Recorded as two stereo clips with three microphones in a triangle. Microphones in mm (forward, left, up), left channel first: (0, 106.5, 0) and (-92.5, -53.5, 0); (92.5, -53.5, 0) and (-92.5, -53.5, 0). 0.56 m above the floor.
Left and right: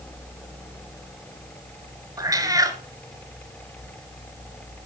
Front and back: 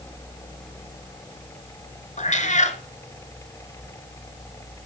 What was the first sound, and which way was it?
A cat meowing, 50° right.